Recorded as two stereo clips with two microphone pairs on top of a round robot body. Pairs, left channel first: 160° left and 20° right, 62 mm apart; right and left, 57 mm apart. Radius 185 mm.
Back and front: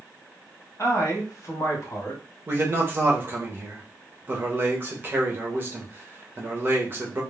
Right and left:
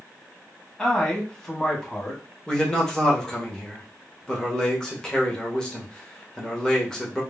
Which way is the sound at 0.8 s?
170° right.